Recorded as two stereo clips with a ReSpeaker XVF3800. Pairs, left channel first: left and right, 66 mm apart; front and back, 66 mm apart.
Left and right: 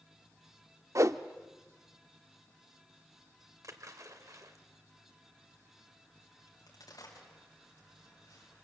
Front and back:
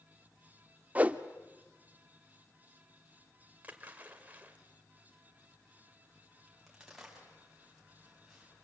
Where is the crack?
95° left, 5 m.